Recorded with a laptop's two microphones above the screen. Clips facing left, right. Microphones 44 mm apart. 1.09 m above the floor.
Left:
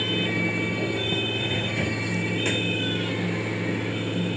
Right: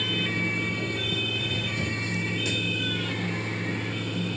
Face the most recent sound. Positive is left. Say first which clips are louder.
# left 2 dB
turn(degrees=45)  # may be behind; listen again after turning